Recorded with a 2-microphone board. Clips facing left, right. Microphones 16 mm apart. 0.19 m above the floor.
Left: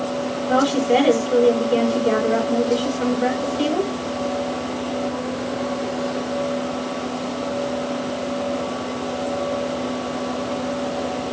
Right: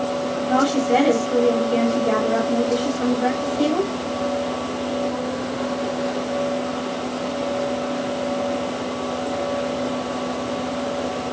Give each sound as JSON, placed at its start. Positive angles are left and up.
{"t": 0.5, "sound": "a woman speaking", "side_deg": 10, "distance_m": 4.5}